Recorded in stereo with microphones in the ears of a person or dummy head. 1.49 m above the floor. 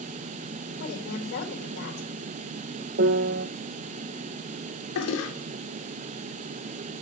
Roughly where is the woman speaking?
Left.